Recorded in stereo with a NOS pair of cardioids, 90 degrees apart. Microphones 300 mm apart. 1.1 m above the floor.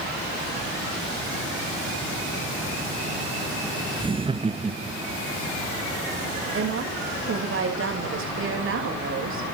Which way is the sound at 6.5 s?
45° right.